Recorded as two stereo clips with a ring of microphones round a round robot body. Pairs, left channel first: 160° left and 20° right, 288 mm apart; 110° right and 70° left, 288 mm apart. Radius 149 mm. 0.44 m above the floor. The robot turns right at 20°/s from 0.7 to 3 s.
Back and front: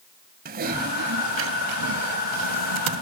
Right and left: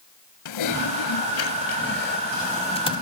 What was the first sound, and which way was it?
Typing on a keyboard, 85° right.